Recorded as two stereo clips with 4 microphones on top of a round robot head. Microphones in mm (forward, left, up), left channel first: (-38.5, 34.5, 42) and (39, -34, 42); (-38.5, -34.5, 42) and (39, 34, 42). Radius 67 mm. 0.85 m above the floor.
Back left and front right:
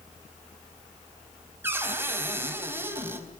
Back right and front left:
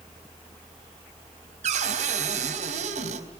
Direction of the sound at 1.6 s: 30° left.